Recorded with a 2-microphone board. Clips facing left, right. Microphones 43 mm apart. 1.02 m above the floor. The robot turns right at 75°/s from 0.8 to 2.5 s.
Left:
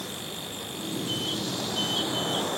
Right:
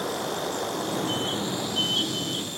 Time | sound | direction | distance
0.0 | running water | 75° right | ?